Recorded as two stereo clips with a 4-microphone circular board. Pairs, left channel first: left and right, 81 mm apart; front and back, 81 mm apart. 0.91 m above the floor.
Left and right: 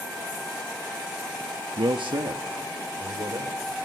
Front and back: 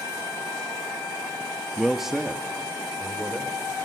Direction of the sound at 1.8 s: 85° right.